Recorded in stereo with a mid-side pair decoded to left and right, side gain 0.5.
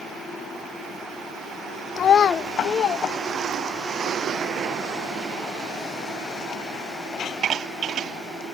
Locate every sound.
2.0 s a child speaking: 45° left, 0.6 m; by 3.9 s 55° left, 2.5 m